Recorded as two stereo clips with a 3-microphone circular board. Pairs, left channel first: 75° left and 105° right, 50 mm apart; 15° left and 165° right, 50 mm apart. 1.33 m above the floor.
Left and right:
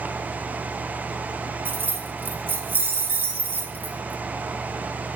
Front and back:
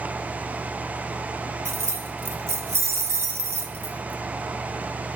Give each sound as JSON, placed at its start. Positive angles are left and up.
{"t": 1.6, "sound": "keys jangling", "azimuth_deg": -150, "distance_m": 1.8}